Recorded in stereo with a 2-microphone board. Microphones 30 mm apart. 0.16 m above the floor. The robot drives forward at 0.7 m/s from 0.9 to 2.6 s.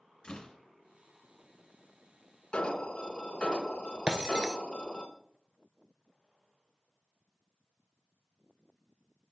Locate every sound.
0.2 s a door slam: 25° left (ahead or behind), 1.2 m
2.5 s an alarm: 40° left (ahead or behind), 1.0 m
4.1 s breaking glass: 25° right (ahead or behind), 0.9 m